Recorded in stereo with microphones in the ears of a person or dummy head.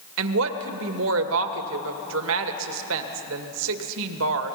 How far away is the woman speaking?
About 1.9 m.